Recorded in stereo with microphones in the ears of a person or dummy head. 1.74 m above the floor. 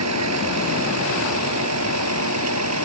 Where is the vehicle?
85° right.